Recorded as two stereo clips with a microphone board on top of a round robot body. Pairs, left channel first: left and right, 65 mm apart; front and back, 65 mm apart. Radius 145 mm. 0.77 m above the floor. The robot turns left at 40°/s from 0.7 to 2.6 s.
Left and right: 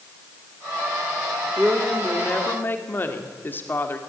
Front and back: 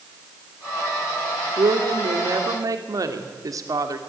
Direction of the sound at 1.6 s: 170° right.